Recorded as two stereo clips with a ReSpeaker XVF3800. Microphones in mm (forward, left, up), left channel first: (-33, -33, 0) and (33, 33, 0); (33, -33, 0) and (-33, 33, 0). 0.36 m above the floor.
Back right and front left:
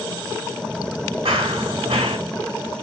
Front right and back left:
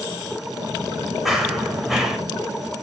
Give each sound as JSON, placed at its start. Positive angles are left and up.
{"t": 1.2, "sound": "running footsteps", "azimuth_deg": 45, "distance_m": 1.6}